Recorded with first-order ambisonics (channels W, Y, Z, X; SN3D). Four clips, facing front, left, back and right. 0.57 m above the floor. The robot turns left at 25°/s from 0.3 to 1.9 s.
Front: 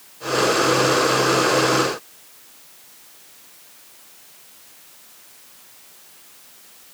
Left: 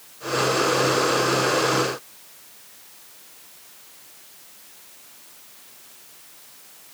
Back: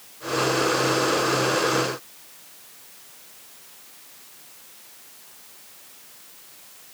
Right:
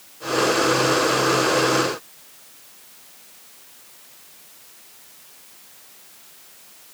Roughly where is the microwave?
No microwave in this recording.